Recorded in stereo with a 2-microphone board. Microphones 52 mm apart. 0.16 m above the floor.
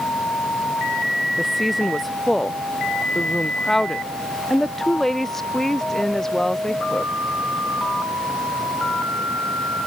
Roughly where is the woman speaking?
Centre.